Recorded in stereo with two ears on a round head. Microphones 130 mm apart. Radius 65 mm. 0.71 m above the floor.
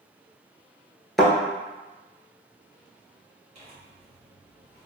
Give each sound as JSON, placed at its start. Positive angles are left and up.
{"t": 1.2, "sound": "a thud", "side_deg": 0, "distance_m": 0.8}
{"t": 3.5, "sound": "tearing paper", "side_deg": -45, "distance_m": 1.8}